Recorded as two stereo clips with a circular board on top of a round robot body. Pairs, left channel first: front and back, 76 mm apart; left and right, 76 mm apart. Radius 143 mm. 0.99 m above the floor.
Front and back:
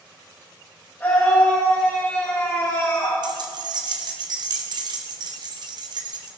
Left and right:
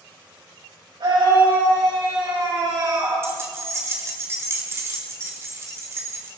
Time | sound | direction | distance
1.0 | a scream | 70° right | 7 m
3.2 | keys jangling | 150° right | 2 m